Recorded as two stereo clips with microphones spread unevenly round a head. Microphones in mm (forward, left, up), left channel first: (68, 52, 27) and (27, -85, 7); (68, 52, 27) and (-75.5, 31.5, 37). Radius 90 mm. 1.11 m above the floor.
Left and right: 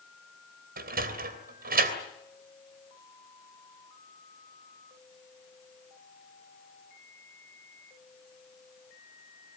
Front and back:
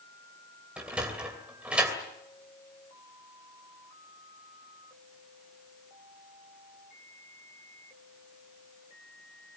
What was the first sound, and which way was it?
A sliding door, 90° right.